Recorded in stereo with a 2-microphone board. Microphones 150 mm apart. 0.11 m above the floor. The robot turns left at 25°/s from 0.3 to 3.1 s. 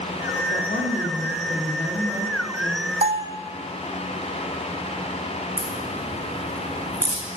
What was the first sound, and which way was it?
A woman speaking, 55° left.